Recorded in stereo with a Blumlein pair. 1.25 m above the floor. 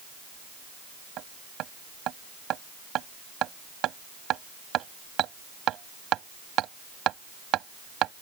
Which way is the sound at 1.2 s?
35° right.